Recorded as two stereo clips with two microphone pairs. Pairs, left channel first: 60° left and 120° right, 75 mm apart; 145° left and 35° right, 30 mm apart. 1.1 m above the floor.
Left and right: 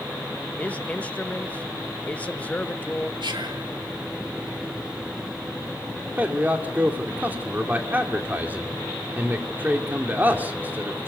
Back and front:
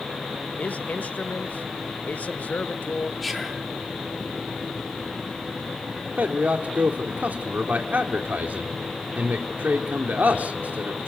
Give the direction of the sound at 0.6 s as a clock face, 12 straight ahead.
8 o'clock.